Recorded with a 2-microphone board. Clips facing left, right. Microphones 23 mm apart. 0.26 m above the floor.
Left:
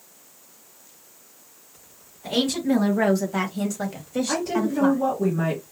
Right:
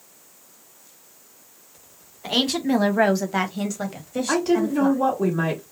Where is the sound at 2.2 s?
55° right (ahead or behind), 1.6 m; by 5.0 s 30° left (ahead or behind), 1.2 m.